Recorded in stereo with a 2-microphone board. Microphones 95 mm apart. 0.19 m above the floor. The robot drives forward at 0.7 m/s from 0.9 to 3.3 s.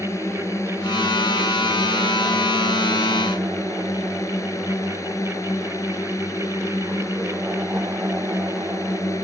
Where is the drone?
30° left (ahead or behind); by 9.2 s 35° left (ahead or behind).